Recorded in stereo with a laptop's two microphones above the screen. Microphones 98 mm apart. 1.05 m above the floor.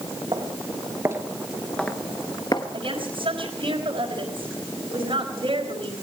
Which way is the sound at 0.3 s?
45° right (ahead or behind).